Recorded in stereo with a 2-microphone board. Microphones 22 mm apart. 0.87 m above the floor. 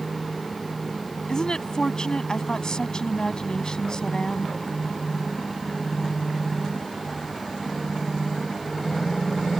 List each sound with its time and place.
1.3 s a woman speaking: 35° left (ahead or behind)